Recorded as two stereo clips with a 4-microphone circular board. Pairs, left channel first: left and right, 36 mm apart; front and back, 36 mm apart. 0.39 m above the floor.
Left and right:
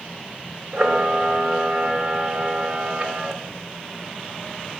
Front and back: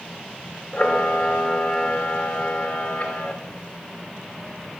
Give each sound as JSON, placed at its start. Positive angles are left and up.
{"t": 0.7, "sound": "a camera shutter", "azimuth_deg": -50, "distance_m": 0.6}